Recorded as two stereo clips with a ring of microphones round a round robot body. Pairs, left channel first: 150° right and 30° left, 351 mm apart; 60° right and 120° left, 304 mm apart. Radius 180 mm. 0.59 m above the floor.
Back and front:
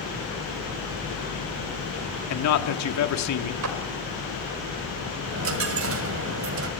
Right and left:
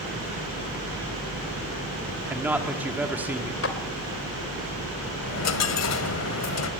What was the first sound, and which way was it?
A man speaking, 155° right.